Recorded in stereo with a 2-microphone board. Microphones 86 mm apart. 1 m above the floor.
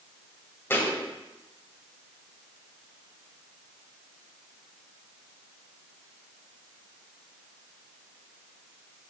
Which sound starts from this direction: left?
A thud, at 0.7 s.